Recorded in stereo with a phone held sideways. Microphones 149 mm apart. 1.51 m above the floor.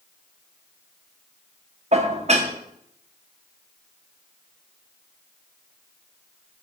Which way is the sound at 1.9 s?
50° right (ahead or behind).